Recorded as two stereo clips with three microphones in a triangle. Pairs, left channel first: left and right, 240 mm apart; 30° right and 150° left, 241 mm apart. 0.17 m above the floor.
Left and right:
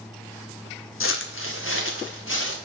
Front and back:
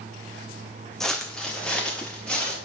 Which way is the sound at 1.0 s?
60° left.